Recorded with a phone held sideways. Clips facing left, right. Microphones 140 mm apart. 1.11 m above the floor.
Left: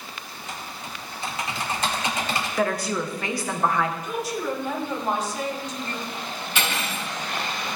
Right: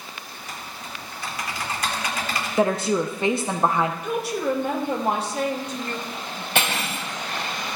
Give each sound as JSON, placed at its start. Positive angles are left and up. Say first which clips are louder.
{"t": 0.3, "sound": "typing on a keyboard", "louder": "left 2 dB", "side_deg": 25, "distance_m": 1.8}
{"t": 2.6, "sound": "a woman speaking", "louder": "right 5 dB", "side_deg": -25, "distance_m": 0.8}
{"t": 4.0, "sound": "a woman speaking", "louder": "right 3 dB", "side_deg": -70, "distance_m": 1.9}
{"t": 6.5, "sound": "cutlery clinking", "louder": "right 3 dB", "side_deg": -70, "distance_m": 4.0}